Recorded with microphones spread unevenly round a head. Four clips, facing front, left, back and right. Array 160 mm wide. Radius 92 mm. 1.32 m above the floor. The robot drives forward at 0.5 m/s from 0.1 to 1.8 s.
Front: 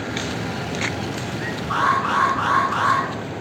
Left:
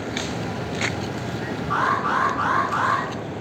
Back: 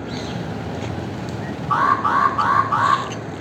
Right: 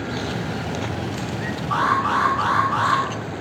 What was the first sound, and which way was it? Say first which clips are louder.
An alarm: right 2 dB, back 3 dB; 170° left.